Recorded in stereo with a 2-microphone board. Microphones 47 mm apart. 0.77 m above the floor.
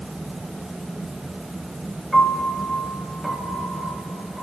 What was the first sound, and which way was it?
A piano, 5° left (ahead or behind).